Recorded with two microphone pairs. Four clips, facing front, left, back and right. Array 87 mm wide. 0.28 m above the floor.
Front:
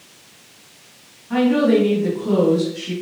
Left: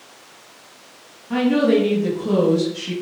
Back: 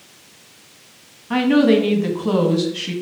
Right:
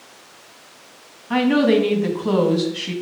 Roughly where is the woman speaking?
Behind right.